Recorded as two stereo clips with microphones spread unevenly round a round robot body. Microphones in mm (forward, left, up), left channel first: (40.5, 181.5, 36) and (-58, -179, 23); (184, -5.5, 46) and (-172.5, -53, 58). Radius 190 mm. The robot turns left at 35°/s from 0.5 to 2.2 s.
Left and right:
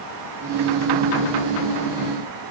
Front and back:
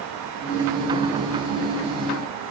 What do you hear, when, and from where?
Only background noise.